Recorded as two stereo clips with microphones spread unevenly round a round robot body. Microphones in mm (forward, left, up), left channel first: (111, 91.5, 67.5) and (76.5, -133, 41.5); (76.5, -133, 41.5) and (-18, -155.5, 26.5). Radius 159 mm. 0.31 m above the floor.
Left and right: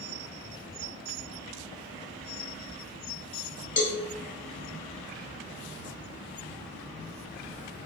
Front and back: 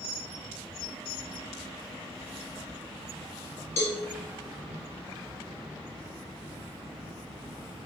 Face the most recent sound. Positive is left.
turn(degrees=20)